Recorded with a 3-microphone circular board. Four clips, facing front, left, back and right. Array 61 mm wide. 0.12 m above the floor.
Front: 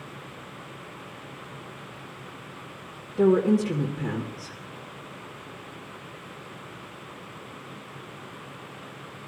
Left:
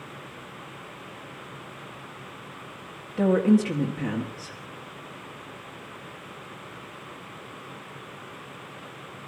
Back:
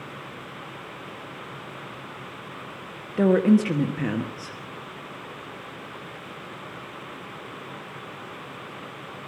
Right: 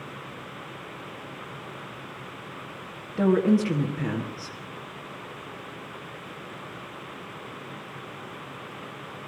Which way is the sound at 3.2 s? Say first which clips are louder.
Left 1 dB, back 2 dB; 175° right.